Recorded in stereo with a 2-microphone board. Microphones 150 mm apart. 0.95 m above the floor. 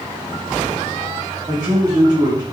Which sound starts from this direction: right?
A man speaking, at 1.5 s.